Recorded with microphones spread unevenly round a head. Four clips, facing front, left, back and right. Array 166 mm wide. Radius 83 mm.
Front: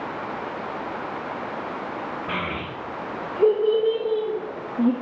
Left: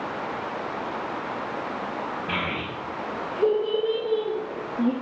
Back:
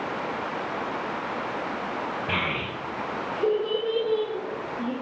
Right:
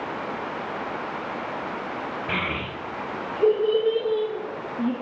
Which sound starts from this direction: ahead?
A child speaking, at 2.3 s.